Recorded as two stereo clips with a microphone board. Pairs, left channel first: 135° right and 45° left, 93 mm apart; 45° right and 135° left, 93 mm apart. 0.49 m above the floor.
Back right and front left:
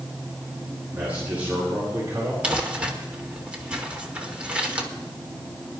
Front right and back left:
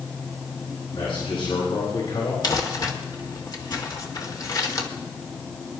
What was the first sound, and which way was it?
A man speaking, 30° right.